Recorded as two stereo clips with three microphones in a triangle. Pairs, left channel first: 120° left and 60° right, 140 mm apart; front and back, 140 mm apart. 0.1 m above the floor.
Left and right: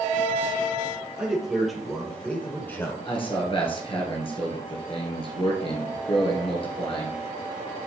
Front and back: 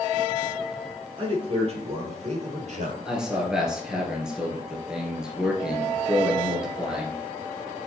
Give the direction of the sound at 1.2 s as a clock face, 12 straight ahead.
5 o'clock.